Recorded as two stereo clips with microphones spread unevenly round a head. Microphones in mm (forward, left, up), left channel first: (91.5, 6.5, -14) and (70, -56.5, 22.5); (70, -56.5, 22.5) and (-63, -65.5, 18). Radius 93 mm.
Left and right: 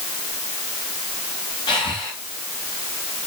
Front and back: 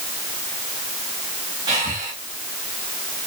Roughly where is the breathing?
Behind left.